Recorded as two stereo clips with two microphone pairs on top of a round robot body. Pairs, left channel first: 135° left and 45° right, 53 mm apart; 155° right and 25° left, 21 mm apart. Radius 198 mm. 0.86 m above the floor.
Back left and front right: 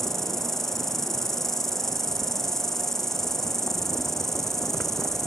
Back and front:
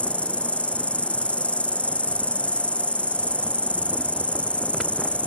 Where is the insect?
140° right.